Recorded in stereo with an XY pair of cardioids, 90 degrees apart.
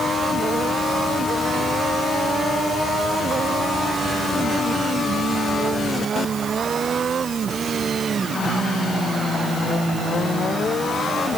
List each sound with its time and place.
Only background noise.